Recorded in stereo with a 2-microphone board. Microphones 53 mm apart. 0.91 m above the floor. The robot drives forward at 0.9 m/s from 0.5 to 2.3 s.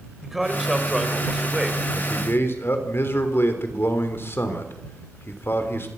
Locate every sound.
0.2 s a man speaking: centre (ahead or behind), 4.5 m; by 1.8 s 5° right (ahead or behind), 3 m
1.9 s a man speaking: 50° left (ahead or behind), 3 m; by 5.9 s 45° left (ahead or behind), 3.5 m